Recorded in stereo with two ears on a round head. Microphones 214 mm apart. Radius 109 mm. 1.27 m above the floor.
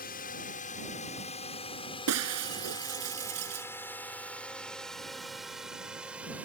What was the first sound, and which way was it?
A drone, 35° left (ahead or behind).